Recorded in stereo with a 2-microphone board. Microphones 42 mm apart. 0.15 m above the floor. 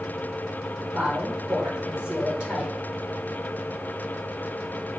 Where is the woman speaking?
20° right (ahead or behind), 4 m.